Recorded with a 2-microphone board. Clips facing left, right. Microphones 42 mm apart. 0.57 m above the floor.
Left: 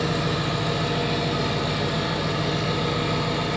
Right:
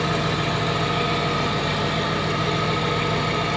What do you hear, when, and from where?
0.0 s an engine running: 65° right (ahead or behind), 1.2 m